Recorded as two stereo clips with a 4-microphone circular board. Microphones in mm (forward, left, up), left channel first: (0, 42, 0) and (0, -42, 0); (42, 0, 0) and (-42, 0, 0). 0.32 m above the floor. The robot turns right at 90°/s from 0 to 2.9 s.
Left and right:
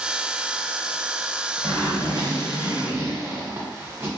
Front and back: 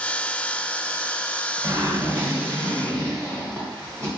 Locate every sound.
1.6 s a zipper: 160° right, 1.4 m; by 4.2 s 45° right, 1.4 m